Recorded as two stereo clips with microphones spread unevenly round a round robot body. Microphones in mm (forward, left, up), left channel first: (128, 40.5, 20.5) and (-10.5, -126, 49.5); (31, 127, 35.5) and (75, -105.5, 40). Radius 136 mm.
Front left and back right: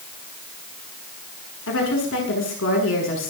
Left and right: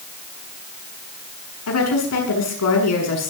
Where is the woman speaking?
90° left, 7.5 m.